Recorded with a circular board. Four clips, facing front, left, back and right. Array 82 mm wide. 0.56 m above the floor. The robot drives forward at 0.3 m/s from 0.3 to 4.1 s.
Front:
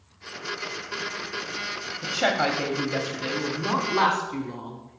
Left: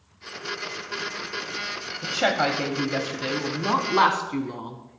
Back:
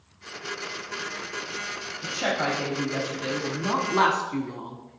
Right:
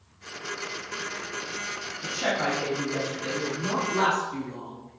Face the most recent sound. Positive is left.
turn(degrees=115)